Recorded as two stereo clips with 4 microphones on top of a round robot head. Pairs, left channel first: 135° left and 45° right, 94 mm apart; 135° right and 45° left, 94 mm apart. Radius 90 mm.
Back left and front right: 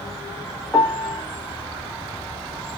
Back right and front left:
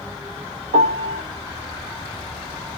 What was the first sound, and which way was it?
A piano, 45° left.